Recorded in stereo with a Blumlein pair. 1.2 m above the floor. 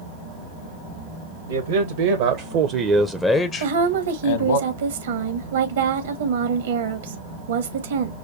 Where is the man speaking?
70° right, 1.1 m; by 4.6 s 65° left, 1.0 m.